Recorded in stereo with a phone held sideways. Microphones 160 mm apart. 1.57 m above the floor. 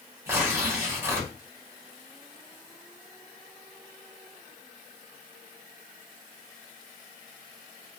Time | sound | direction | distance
0.3 | tearing paper | 15° right (ahead or behind) | 0.9 m